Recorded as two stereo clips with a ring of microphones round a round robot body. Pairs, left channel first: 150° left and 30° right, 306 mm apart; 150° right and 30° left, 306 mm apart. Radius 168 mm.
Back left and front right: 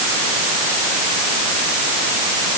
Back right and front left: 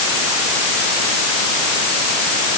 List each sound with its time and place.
Only background noise.